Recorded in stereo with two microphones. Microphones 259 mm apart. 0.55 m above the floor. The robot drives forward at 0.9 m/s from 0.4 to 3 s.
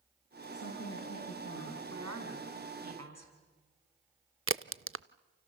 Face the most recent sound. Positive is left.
turn(degrees=-55)  # may be behind; listen again after turning